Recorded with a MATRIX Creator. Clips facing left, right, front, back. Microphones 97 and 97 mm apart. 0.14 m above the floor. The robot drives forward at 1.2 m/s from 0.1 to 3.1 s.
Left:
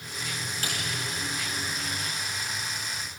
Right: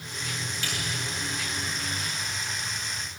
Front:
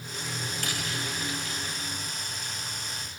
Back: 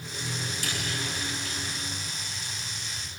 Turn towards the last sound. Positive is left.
turn(degrees=55)